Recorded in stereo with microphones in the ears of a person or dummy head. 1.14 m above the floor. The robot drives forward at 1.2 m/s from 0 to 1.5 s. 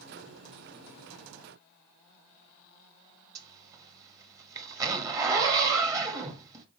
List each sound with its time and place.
3.4 s a zipper: 20° right (ahead or behind), 1.2 m